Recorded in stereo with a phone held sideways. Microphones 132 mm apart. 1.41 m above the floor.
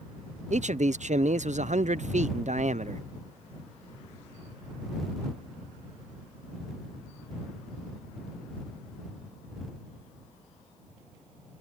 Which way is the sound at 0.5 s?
60° right (ahead or behind).